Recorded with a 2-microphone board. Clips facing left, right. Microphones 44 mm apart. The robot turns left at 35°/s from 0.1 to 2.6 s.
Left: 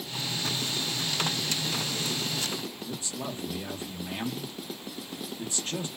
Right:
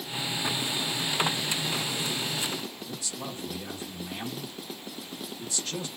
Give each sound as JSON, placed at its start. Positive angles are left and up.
{"t": 2.9, "sound": "a man speaking", "side_deg": 30, "distance_m": 0.7}